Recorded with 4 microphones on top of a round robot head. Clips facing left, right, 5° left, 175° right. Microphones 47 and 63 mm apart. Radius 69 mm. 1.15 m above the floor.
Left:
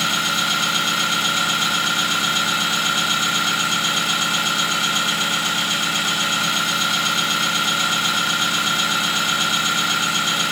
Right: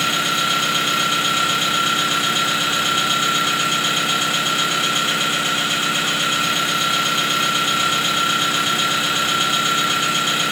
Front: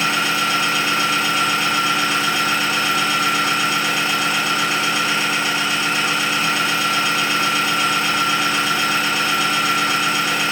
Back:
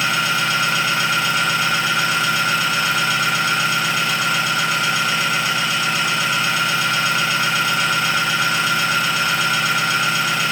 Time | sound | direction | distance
0.0 | an engine running | 35° right | 1.2 m